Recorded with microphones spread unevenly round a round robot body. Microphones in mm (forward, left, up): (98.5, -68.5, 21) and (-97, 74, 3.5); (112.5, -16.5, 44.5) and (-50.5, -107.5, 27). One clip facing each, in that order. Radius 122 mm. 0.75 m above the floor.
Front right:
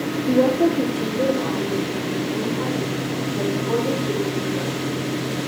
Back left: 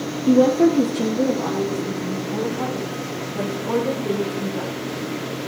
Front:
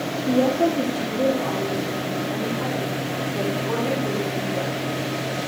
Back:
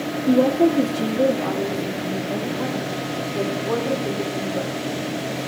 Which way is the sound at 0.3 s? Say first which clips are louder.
Back left 3 dB, back 3 dB; 145° left.